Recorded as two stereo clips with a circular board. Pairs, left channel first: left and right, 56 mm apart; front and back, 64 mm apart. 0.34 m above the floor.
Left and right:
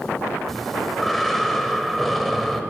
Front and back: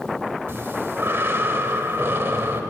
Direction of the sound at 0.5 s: Straight behind.